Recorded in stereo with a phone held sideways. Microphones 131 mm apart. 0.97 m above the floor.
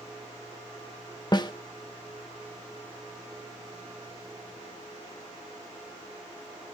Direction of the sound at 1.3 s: 35° left (ahead or behind).